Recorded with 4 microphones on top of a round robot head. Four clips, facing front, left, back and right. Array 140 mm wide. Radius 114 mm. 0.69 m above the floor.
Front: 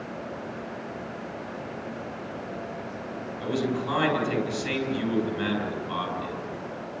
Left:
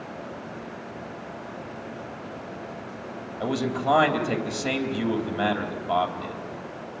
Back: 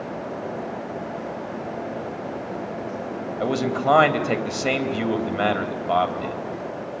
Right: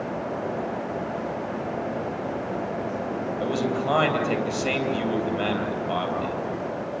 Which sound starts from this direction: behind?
A man speaking, at 3.4 s.